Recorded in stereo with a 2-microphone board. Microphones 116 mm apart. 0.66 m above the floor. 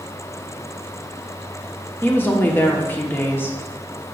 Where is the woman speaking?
20° left (ahead or behind), 1.1 m.